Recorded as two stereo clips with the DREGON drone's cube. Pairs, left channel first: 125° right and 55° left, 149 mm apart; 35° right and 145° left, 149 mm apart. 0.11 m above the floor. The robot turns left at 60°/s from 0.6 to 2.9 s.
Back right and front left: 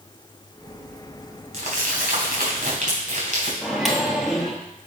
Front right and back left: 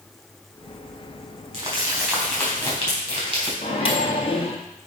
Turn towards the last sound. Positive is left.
turn(degrees=-30)